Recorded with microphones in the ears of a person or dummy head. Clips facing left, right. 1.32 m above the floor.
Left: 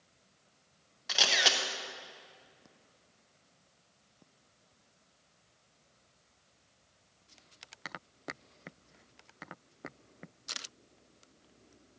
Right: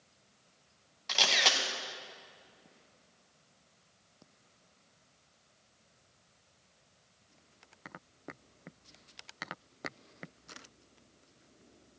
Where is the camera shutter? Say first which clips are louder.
Even; 5° left (ahead or behind), 0.8 m.